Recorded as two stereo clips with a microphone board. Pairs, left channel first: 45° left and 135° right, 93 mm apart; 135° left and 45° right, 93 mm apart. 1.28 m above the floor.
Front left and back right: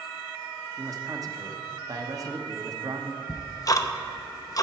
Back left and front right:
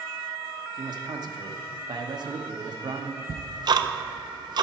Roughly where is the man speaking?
Right.